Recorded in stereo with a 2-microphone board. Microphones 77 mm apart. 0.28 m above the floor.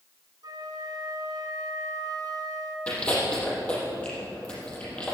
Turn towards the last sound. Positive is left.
turn(degrees=15)  # may be behind; listen again after turning